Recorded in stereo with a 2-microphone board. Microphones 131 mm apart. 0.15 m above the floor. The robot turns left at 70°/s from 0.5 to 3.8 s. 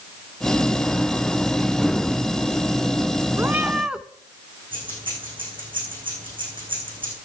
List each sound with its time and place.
3.4 s a cat meowing: 140° right, 0.6 m; by 4.0 s 170° right, 0.6 m
4.7 s keys jangling: 40° right (ahead or behind), 6.5 m